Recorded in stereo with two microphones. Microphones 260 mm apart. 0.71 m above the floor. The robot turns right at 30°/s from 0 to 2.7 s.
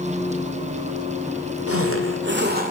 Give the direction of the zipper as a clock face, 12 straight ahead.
2 o'clock.